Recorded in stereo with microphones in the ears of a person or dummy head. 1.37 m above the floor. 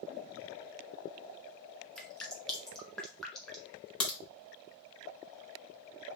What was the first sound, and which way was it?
Dripping, 5° left (ahead or behind).